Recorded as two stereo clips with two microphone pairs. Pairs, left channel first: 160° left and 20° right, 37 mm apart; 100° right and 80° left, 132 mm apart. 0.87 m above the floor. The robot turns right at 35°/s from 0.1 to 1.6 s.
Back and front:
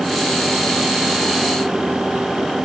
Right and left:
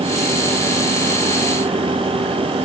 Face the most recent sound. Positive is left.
No sound to turn to.